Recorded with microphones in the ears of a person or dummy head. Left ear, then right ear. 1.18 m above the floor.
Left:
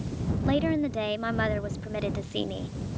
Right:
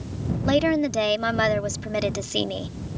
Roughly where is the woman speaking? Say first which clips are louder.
Right 6 dB; right.